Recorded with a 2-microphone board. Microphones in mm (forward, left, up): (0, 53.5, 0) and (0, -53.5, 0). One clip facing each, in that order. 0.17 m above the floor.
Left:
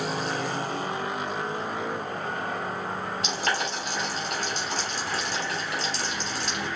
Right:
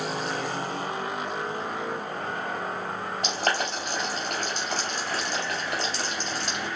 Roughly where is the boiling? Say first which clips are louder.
Right 3 dB; right.